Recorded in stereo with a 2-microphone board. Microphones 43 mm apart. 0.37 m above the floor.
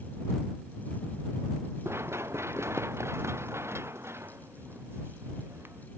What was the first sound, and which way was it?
Running footsteps, 75° right (ahead or behind).